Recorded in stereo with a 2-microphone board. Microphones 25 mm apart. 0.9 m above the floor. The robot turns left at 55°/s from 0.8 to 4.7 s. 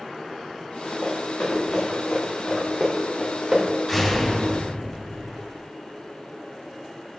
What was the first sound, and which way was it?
Running footsteps, 80° left.